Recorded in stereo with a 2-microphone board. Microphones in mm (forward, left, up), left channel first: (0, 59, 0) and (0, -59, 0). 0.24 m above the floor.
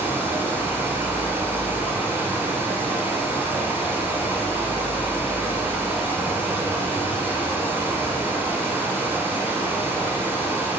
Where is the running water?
20° right (ahead or behind), 0.9 m.